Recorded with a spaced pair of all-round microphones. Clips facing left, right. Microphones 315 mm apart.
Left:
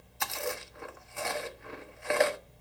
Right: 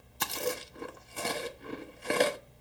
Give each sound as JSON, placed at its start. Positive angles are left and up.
{"t": 0.2, "sound": "chewing", "side_deg": -40, "distance_m": 1.1}